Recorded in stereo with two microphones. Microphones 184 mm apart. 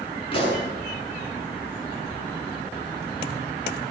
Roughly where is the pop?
Left.